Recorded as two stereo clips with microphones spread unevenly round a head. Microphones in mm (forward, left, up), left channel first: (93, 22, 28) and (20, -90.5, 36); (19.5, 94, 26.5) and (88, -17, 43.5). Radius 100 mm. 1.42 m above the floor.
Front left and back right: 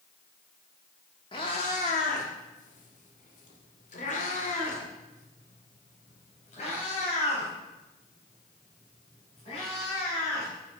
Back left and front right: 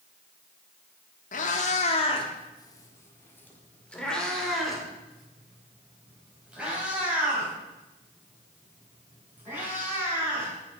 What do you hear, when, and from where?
1.3 s a cat meowing: 120° left, 1.2 m; by 10.5 s 15° left, 6.5 m